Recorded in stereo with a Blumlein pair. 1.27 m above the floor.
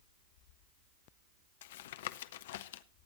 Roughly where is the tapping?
Ahead left.